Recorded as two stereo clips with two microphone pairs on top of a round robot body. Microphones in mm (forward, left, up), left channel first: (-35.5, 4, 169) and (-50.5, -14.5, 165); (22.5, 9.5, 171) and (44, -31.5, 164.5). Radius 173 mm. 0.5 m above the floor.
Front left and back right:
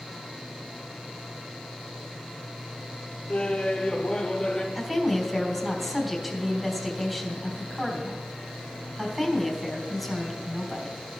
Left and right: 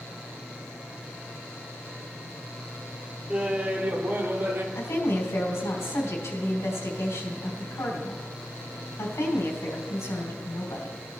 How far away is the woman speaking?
About 3.5 m.